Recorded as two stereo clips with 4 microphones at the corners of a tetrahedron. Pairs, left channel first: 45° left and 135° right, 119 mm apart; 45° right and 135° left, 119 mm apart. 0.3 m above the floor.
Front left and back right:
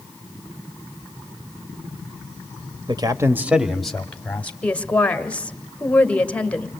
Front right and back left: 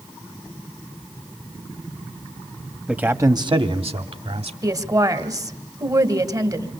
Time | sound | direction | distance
2.9 | a man speaking | 145° right | 1.1 m
4.6 | a woman speaking | 115° left | 1.5 m